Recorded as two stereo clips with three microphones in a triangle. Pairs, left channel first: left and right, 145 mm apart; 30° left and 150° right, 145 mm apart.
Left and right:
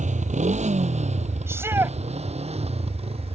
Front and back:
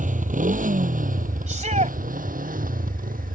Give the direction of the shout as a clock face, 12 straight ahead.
5 o'clock.